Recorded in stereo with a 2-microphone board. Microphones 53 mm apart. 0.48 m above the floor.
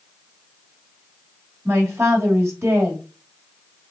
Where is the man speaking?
60° right (ahead or behind), 1.9 m.